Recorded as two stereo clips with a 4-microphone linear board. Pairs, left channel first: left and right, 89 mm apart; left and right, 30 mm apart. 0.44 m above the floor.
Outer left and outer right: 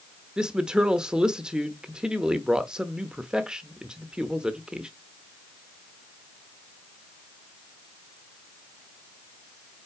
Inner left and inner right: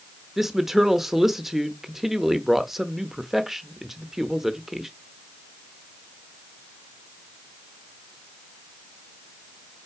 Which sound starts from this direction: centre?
A woman speaking, at 0.4 s.